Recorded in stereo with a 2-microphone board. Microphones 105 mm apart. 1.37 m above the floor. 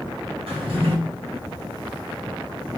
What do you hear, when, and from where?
0.5 s a drawer: 75° right (ahead or behind), 2 m